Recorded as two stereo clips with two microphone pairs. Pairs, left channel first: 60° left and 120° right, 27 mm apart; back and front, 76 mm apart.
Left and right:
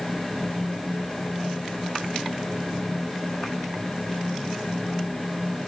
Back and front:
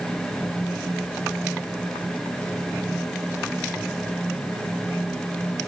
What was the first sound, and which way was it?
Only background noise.